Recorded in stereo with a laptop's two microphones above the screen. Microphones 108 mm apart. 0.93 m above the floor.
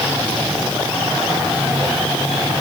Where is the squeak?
No squeak in this recording.